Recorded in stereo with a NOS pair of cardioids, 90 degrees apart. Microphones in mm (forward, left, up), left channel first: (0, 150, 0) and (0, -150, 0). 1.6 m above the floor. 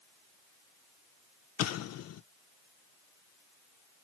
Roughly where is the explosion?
Ahead left.